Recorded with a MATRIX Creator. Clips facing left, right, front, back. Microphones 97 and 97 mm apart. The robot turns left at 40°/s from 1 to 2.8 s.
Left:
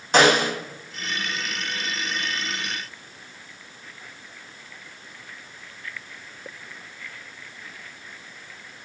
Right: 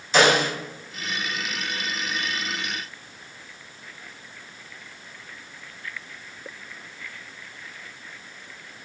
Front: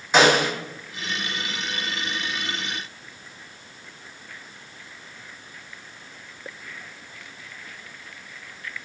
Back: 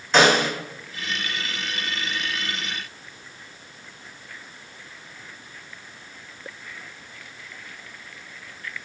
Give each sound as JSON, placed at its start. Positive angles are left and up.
{"t": 0.1, "sound": "a snare drum", "azimuth_deg": 80, "distance_m": 1.1}